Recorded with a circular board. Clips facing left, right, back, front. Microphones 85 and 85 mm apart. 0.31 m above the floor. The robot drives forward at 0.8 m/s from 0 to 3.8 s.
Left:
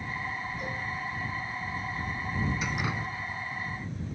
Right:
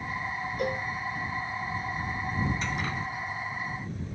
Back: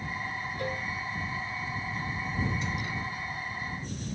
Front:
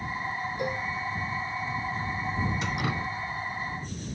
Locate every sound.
0.6 s a cowbell: 70° right, 0.8 m; by 0.8 s 85° right, 0.8 m
2.6 s dripping: 10° left, 1.0 m; by 3.1 s 15° left, 0.6 m